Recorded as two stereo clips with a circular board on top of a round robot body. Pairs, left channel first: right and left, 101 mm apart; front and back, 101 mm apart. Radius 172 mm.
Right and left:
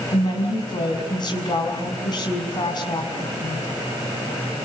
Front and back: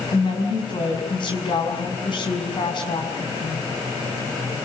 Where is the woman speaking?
40° right, 6.5 m.